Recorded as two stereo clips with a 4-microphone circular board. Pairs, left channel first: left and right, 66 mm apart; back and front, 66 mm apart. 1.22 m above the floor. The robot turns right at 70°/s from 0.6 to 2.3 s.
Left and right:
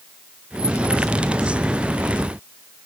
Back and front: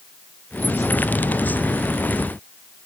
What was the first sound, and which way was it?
Only background noise.